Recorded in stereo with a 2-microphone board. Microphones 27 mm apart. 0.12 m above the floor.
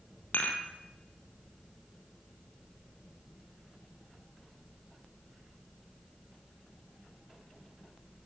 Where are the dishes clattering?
65° left (ahead or behind), 2 m.